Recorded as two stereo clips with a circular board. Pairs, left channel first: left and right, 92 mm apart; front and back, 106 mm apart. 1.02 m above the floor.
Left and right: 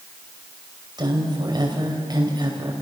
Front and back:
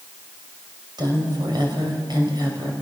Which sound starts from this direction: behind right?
A woman speaking, at 1.0 s.